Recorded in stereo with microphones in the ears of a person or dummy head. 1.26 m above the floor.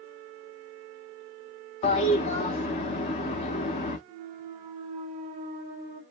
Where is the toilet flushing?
35° left (ahead or behind), 1.0 m.